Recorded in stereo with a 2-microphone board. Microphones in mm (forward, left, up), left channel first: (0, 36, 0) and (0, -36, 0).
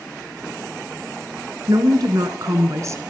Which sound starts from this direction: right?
A woman speaking, at 1.7 s.